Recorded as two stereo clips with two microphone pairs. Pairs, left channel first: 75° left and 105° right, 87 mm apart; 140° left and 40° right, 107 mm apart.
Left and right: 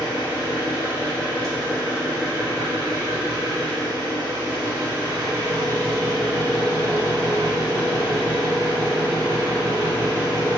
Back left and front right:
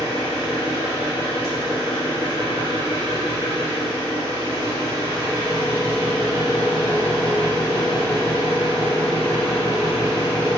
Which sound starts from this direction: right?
An engine running, at 0.0 s.